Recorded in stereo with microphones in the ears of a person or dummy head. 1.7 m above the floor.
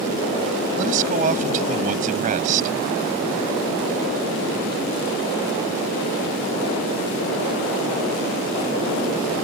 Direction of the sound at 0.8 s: 45° right (ahead or behind).